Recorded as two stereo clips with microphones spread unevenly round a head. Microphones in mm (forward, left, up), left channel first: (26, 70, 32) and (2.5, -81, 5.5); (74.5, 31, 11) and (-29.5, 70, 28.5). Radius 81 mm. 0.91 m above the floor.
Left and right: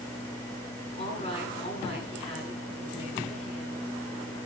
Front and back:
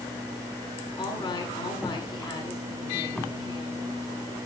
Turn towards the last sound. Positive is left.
turn(degrees=30)